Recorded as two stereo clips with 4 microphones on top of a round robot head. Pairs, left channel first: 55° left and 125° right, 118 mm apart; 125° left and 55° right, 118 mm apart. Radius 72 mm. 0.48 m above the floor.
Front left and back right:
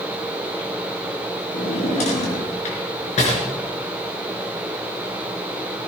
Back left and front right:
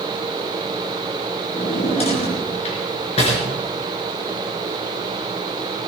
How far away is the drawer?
About 4.5 m.